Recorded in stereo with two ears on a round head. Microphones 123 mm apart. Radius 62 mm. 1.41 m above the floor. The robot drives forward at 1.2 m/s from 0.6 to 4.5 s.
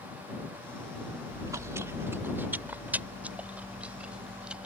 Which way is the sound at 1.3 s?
30° right (ahead or behind).